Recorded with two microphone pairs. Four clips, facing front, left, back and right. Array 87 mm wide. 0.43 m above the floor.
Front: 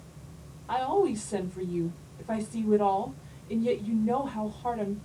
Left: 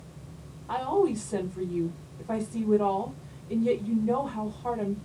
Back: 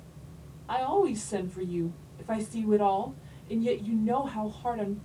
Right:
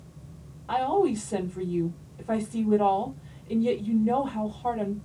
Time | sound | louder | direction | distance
0.7 | a woman speaking | right 2 dB, even | 110° right | 1.3 m